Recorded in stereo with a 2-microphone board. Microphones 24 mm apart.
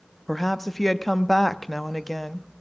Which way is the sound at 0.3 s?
5° left (ahead or behind).